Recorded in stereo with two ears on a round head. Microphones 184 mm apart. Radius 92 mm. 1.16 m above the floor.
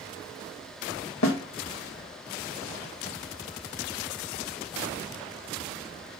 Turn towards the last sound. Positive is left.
turn(degrees=70)  # may be behind; listen again after turning